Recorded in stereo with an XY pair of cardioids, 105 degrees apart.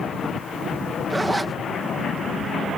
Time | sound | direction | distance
1.1 | a zipper | 15° right | ?